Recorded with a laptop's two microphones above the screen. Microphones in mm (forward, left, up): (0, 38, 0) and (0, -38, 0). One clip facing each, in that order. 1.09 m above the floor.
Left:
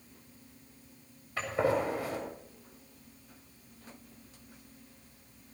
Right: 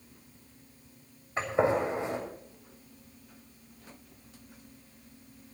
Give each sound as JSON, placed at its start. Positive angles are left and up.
{"t": 1.4, "sound": "a gunshot", "side_deg": -25, "distance_m": 7.0}